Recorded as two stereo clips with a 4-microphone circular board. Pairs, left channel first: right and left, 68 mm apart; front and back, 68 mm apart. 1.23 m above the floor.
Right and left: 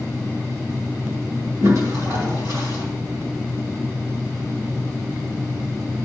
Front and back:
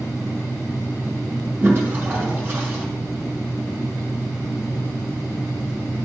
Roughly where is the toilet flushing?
Behind left.